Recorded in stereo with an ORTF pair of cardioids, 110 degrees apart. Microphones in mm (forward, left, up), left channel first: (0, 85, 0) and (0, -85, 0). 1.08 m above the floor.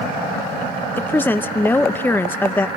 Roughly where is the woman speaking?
Ahead.